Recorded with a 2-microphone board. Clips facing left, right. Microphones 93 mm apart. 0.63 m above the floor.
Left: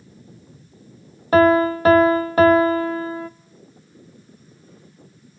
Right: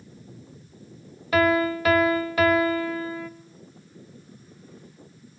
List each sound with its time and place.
1.3 s a piano: 35° left (ahead or behind), 0.5 m